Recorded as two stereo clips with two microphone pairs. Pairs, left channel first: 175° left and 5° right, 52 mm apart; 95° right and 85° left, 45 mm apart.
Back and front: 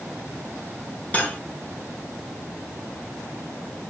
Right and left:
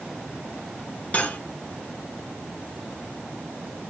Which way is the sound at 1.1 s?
135° right.